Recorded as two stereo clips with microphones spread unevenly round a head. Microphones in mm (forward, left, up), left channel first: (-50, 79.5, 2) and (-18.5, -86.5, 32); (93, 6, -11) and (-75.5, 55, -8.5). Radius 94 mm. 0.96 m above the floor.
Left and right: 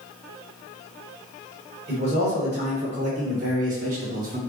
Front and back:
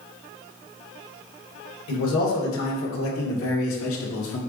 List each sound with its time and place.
1.9 s a man speaking: 20° right, 3 m; by 4.4 s 30° right, 1.7 m